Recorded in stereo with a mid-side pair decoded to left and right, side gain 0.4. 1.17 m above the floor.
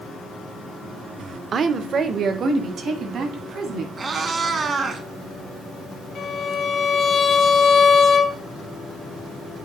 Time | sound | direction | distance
1.5 | a woman speaking | 55° right | 0.6 m
4.0 | a cat meowing | 50° right | 1.1 m
6.2 | a violin | 65° left | 1.2 m